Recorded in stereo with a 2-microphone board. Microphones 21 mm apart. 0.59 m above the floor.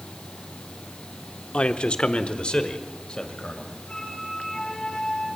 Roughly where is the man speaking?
Left.